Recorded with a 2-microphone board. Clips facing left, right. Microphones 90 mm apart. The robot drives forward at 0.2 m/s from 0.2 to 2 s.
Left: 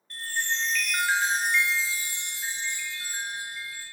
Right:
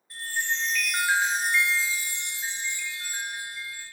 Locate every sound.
0.1 s a chime: 10° right (ahead or behind), 0.9 m